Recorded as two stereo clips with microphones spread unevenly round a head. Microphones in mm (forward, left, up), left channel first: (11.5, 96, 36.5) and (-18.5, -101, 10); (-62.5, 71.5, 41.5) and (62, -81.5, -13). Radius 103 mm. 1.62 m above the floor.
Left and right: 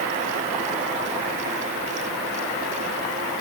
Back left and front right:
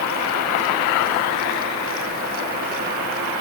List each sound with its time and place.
Only background noise.